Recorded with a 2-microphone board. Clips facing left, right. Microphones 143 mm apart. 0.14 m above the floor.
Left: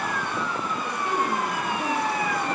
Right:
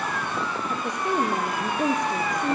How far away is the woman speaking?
About 3.5 m.